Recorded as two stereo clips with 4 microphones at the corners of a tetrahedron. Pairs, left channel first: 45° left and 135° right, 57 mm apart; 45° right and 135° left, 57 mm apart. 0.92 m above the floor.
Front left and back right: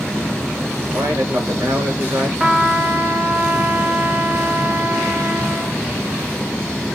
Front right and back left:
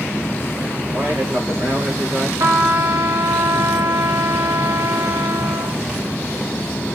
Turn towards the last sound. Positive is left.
turn(degrees=155)